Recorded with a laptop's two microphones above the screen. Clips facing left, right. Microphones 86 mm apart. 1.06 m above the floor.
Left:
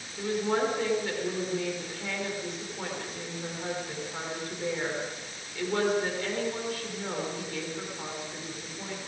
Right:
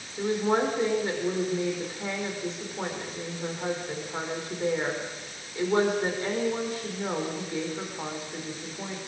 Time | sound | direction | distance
0.2 | a woman speaking | 25° right (ahead or behind) | 4 m